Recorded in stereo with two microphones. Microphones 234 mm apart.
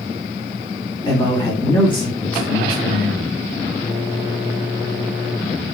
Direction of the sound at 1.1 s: 20° left (ahead or behind).